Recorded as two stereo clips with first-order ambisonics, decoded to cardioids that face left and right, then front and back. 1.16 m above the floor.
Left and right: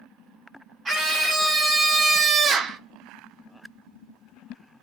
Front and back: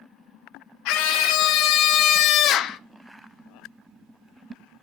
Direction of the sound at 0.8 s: 15° right.